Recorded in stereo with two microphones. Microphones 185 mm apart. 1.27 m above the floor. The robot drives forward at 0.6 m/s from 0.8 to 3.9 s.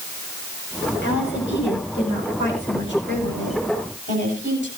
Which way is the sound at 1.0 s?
80° left.